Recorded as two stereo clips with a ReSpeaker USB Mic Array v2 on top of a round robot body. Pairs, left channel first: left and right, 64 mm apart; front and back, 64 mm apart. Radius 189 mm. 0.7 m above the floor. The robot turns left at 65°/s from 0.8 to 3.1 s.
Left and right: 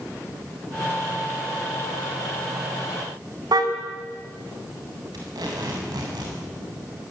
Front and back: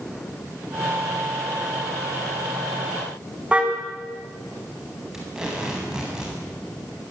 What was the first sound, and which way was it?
A car horn, 105° right.